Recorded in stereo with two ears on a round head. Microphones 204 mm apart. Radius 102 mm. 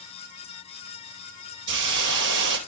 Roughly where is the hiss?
Right.